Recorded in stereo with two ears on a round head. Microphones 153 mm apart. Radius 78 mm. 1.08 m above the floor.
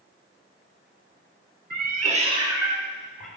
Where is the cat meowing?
55° right (ahead or behind), 1.0 m; by 3.3 s centre (ahead or behind), 1.8 m.